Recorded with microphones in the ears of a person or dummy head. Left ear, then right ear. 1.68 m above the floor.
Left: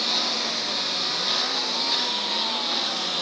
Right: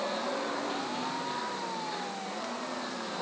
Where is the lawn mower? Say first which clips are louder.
Left 9 dB; 85° left; by 3.2 s 80° left.